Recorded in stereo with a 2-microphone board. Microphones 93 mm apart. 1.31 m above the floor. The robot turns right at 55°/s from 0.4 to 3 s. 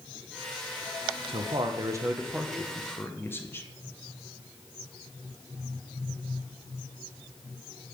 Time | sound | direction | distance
1.3 | a man speaking | 70° right | 1.0 m